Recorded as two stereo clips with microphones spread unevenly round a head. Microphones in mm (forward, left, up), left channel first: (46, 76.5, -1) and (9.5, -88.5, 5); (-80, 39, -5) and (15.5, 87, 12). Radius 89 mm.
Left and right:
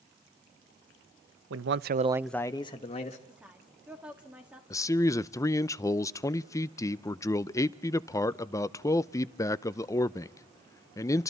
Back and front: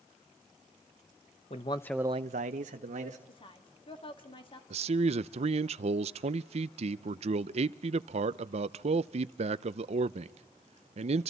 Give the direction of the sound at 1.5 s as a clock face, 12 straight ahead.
4 o'clock.